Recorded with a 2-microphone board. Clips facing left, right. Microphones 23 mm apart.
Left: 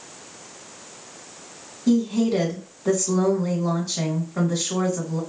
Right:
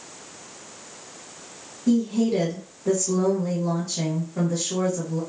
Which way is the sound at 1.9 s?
70° left (ahead or behind).